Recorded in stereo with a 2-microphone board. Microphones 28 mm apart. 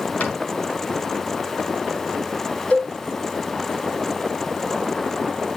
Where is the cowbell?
75° left (ahead or behind), 4 m.